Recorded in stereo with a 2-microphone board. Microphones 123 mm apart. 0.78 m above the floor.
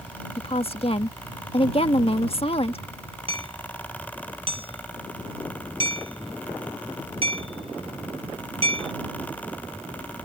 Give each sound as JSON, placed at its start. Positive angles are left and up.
{"t": 0.4, "sound": "a woman speaking", "side_deg": 50}
{"t": 3.3, "sound": "hammering", "side_deg": -50}